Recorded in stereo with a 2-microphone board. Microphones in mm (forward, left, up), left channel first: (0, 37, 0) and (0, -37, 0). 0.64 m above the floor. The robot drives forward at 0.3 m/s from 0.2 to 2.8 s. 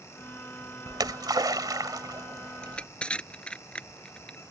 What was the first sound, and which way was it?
A splash, 65° right (ahead or behind).